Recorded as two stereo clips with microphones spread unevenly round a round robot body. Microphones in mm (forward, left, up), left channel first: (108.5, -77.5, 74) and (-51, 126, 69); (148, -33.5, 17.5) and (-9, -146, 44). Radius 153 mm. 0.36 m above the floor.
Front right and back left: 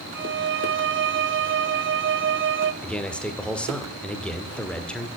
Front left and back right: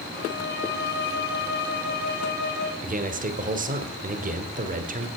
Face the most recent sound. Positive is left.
turn(degrees=-135)